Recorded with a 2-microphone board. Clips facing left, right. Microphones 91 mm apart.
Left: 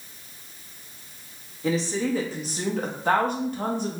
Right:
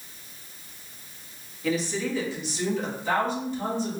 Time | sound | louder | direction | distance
1.6 | a woman speaking | left 2 dB | 25° left (ahead or behind) | 1.2 m